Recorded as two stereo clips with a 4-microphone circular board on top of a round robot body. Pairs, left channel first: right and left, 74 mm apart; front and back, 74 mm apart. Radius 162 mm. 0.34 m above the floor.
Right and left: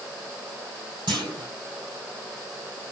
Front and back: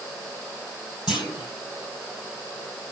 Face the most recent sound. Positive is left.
turn(degrees=95)